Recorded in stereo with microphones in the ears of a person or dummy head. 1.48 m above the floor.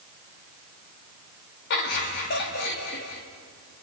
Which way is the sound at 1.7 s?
60° left (ahead or behind).